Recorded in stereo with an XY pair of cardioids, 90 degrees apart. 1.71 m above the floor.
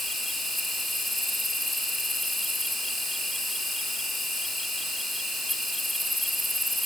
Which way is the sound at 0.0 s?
5° left.